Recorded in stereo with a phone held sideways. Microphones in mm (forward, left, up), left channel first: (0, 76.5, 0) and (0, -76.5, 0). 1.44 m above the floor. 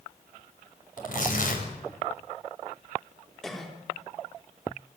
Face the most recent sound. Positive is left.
turn(degrees=5)  # may be behind; listen again after turning